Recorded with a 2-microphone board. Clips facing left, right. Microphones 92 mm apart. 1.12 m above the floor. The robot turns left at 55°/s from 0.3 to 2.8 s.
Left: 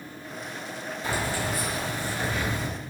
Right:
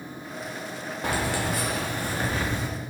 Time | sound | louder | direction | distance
1.0 | keys jangling | right 2 dB | 70° right | 0.9 m